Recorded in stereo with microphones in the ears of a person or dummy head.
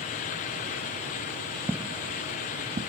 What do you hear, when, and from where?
1.7 s footsteps: 5° right (ahead or behind); by 2.9 s 25° right (ahead or behind)